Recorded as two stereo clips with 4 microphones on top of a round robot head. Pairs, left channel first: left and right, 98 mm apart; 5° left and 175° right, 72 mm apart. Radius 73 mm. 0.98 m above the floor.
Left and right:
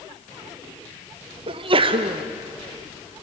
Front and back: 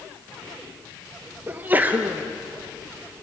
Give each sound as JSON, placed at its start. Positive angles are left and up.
{"t": 1.5, "sound": "a sneeze", "azimuth_deg": -110, "distance_m": 0.7}